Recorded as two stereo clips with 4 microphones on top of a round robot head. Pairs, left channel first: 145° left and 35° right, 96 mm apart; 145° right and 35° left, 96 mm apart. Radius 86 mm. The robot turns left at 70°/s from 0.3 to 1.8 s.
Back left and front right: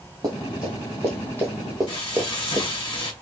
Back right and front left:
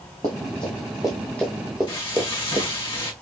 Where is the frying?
Straight behind, 3 m.